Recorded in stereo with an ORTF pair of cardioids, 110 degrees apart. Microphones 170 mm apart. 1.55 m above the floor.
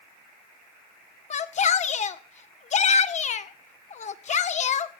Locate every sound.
1.3 s a shout: 45° left, 1.7 m